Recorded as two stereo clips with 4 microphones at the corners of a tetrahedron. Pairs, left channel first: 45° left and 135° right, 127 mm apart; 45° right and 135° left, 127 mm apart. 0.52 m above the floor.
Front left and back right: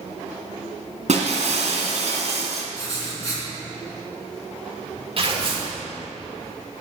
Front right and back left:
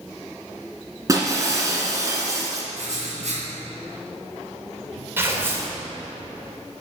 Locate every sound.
1.1 s breaking glass: 160° right, 1.8 m
2.7 s writing: 110° left, 4 m
5.2 s tearing paper: 160° right, 1.9 m